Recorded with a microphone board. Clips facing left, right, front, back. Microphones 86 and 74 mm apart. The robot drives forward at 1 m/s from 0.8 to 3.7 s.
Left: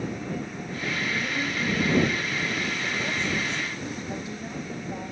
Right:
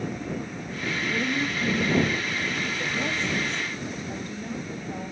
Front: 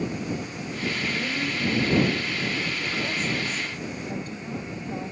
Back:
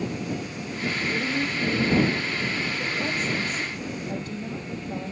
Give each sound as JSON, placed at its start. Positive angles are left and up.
{"t": 1.1, "sound": "a woman speaking", "azimuth_deg": -130, "distance_m": 6.0}
{"t": 4.1, "sound": "a woman speaking", "azimuth_deg": 170, "distance_m": 6.0}